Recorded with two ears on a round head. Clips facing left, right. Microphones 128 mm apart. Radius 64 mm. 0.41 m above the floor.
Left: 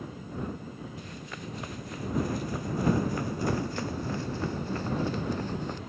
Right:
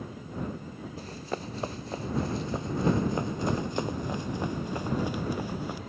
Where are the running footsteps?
30° right (ahead or behind); by 5.8 s 10° right (ahead or behind).